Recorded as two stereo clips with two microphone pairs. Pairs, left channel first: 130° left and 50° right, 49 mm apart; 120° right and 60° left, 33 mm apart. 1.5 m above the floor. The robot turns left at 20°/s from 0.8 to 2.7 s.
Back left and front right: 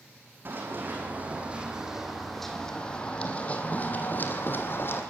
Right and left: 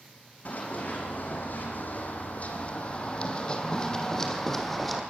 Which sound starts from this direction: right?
Running footsteps, at 0.5 s.